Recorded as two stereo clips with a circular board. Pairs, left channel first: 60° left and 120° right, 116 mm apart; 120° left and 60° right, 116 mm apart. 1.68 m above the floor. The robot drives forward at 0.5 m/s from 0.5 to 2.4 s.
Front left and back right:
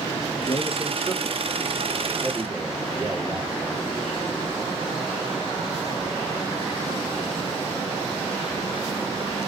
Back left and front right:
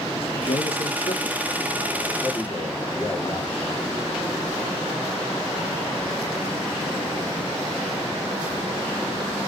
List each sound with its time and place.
0.1 s a man speaking: 110° left, 0.6 m; by 3.5 s 160° left, 1.2 m